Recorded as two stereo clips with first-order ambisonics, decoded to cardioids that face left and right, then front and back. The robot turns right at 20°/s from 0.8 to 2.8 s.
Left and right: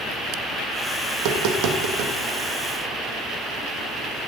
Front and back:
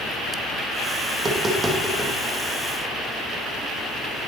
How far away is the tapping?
About 2.0 m.